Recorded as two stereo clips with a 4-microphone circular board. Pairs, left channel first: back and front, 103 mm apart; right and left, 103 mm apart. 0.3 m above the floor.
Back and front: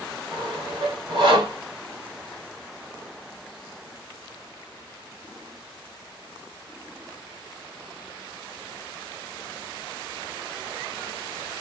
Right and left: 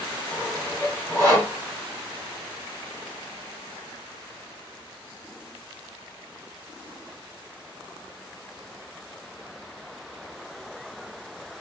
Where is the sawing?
25° right, 2.5 m.